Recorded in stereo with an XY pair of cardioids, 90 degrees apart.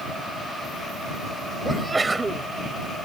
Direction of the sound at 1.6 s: 25° right.